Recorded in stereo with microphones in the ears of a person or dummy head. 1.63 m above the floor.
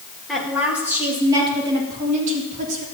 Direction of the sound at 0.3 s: Centre (ahead or behind).